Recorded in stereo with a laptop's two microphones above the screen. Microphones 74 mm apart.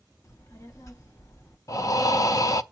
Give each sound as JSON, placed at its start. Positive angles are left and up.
{"t": 0.2, "sound": "a child speaking", "side_deg": 40, "distance_m": 0.8}
{"t": 1.7, "sound": "breathing", "side_deg": 50, "distance_m": 0.7}